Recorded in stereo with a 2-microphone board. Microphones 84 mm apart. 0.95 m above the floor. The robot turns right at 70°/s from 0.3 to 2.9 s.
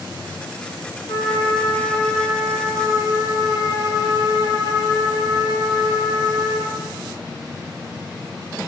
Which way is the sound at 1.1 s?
105° left.